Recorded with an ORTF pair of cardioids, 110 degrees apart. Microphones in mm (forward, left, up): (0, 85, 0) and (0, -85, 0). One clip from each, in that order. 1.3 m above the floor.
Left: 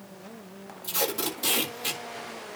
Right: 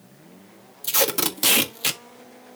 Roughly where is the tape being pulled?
Ahead right.